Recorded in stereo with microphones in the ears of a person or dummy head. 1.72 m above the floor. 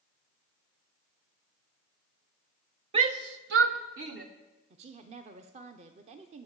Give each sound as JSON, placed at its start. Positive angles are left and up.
{"t": 2.9, "sound": "a shout", "side_deg": -35, "distance_m": 0.7}
{"t": 4.7, "sound": "a woman speaking", "side_deg": -35, "distance_m": 0.7}